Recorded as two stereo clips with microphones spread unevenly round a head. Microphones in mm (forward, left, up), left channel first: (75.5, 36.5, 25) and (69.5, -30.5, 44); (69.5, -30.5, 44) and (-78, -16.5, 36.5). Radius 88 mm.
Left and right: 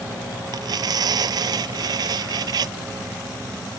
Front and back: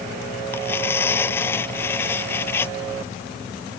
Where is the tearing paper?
80° right.